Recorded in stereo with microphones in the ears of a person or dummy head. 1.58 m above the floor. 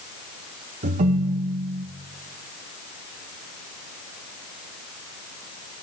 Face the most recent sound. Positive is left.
turn(degrees=-35)  # may be behind; listen again after turning